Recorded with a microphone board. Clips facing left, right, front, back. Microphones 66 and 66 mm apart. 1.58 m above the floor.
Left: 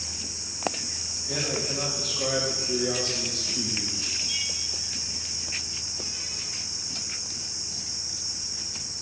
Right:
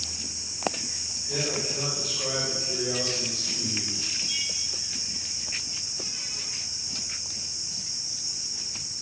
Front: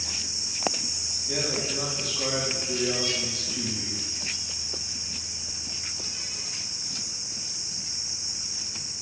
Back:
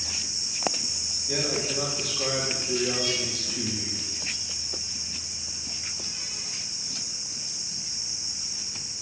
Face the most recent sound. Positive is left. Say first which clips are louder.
# even, back 1 dB
turn(degrees=70)